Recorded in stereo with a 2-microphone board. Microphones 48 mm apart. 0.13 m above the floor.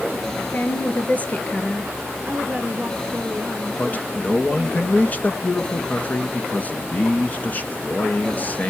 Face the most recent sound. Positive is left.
turn(degrees=35)  # may be behind; listen again after turning